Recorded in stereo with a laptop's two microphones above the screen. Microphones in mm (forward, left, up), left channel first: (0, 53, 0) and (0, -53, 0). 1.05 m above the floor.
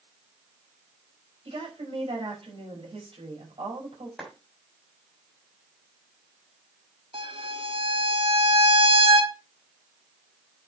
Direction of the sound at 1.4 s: 60° right (ahead or behind).